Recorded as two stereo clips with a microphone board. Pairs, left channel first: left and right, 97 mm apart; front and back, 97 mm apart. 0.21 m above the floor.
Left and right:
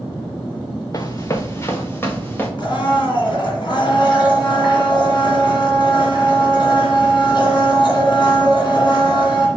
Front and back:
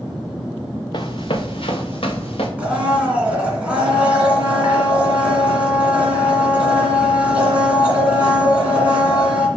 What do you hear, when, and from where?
0.9 s running footsteps: 40° left, 1.0 m; by 2.5 s 20° left, 2.0 m
2.6 s a blender: 105° left, 2 m